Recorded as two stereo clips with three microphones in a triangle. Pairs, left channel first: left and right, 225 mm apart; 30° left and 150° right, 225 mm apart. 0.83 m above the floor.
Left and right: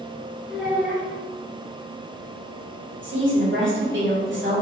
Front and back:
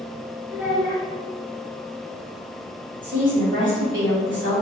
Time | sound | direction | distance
0.5 | a child speaking | 175° right | 1.3 m
3.0 | a woman speaking | 120° right | 2.0 m